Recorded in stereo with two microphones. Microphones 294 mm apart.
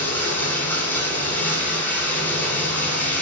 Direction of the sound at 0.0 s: 5° left (ahead or behind).